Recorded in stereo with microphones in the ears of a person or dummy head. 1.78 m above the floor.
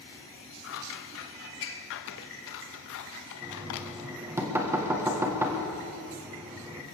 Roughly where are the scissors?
Left.